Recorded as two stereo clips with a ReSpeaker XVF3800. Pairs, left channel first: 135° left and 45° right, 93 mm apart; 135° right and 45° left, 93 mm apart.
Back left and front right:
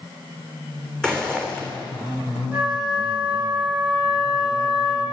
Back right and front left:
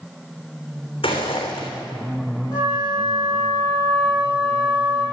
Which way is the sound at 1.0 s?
145° right.